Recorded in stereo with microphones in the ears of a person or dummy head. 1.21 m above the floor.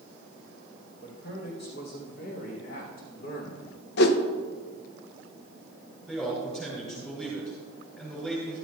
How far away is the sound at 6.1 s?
About 3.5 m.